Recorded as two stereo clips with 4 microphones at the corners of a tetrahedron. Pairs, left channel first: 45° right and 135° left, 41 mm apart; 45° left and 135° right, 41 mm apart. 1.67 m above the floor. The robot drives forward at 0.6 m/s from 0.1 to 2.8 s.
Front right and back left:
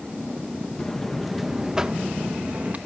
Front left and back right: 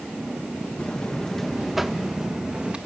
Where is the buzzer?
10° left, 0.9 m; by 2.8 s 175° left, 1.1 m.